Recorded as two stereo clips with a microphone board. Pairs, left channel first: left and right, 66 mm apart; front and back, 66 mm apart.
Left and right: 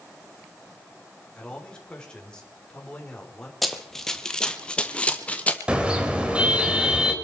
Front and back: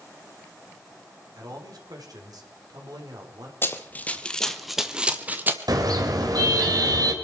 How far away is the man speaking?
About 4 m.